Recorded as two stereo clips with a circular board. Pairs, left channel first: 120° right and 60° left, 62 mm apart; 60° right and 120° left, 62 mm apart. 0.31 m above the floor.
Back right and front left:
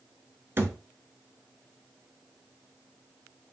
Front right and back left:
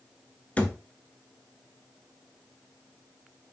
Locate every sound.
0.6 s a thud: 10° left, 0.6 m